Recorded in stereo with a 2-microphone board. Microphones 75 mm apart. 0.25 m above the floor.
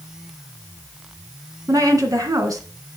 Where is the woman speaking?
50° right (ahead or behind), 2.5 m.